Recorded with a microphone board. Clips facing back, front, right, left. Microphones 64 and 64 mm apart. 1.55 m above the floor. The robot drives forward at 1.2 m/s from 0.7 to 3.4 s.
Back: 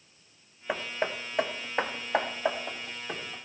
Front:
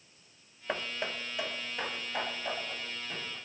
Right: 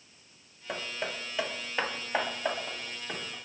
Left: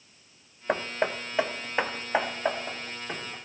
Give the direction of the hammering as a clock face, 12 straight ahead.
9 o'clock.